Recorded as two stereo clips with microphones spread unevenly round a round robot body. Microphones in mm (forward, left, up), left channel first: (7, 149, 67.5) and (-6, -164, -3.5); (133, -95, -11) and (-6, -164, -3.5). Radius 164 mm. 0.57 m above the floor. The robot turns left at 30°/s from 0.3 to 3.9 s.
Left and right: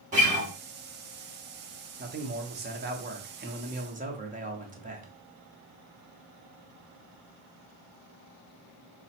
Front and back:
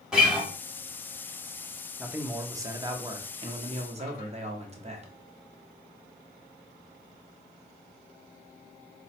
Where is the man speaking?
70° right, 0.7 m; by 5.1 s 130° right, 0.7 m.